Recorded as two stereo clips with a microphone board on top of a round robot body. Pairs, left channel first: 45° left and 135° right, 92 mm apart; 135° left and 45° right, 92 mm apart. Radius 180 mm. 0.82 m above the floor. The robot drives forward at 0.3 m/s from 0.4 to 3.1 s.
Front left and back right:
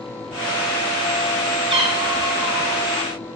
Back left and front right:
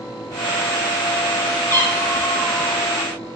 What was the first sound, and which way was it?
A cat meowing, 160° right.